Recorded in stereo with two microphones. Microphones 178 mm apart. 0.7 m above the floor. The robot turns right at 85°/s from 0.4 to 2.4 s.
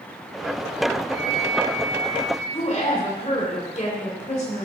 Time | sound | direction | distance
1.1 | a flute | 150° left | 4 m
2.5 | a woman speaking | 35° left (ahead or behind) | 2.5 m